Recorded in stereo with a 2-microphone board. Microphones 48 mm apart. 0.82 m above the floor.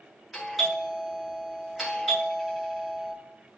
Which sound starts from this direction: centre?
A doorbell, at 0.3 s.